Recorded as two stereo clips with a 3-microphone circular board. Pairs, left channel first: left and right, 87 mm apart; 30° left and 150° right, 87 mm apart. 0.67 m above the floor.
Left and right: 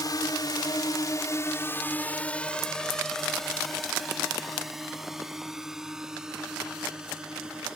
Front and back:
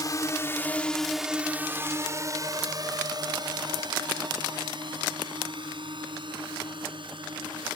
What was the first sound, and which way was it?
A drone, 60° left.